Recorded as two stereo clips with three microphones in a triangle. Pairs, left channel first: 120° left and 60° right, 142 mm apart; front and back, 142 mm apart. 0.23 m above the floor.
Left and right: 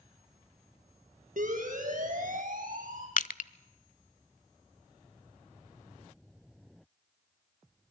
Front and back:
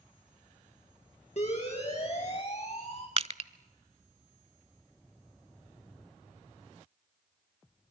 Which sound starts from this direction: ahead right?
A siren, at 1.4 s.